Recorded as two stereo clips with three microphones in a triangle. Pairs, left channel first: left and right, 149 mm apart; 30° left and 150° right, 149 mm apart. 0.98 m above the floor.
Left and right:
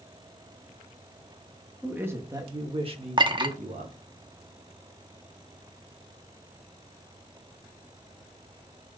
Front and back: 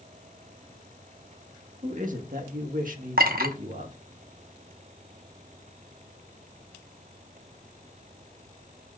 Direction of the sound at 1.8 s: 170° right.